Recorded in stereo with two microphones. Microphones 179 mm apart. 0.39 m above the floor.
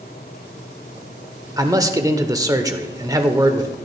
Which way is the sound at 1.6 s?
20° right (ahead or behind).